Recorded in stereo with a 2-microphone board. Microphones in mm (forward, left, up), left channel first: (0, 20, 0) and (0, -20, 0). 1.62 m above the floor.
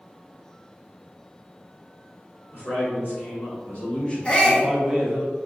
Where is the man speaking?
70° left (ahead or behind), 1.5 m; by 5.2 s 30° right (ahead or behind), 1.0 m.